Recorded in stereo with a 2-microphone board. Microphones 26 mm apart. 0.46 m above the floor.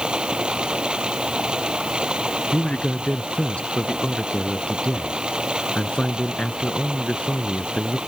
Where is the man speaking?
45° left (ahead or behind).